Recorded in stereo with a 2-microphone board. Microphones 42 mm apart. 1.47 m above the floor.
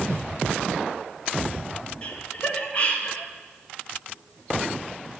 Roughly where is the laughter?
Left.